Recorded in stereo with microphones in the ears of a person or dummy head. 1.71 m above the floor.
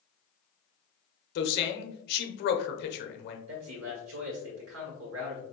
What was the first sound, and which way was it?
A man speaking, 60° left (ahead or behind).